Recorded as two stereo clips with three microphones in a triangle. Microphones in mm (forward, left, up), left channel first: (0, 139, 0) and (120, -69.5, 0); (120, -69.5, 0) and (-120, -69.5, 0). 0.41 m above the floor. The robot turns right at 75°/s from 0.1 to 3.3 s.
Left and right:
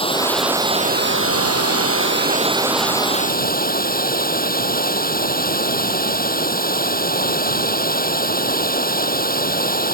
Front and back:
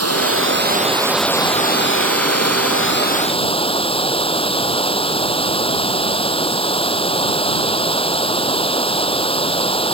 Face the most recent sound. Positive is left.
turn(degrees=70)